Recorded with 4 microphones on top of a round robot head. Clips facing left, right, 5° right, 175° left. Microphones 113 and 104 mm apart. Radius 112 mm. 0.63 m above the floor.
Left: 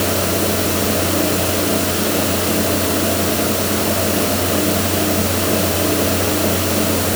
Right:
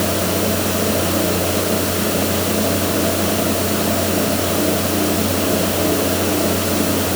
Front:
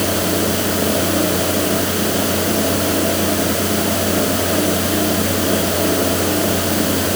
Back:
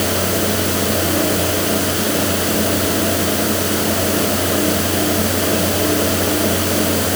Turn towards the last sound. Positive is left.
No sound to turn to.